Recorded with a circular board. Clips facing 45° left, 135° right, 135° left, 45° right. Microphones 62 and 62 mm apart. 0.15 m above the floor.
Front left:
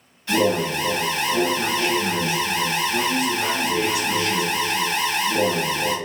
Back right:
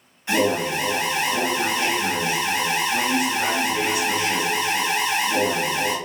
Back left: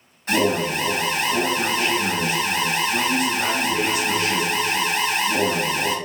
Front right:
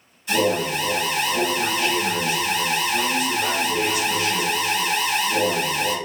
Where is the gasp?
I don't hear a gasp.